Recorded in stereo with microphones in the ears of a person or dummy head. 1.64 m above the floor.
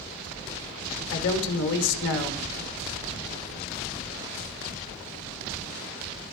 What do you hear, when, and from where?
1.1 s a man speaking: 70° left (ahead or behind), 1.5 m